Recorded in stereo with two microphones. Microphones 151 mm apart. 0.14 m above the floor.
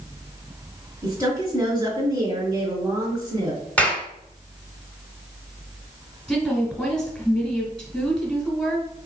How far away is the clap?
About 1.3 m.